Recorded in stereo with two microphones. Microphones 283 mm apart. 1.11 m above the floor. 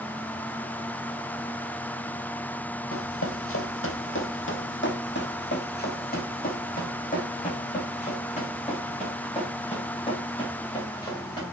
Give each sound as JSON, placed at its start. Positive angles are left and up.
{"t": 2.9, "sound": "running footsteps", "side_deg": 50, "distance_m": 1.6}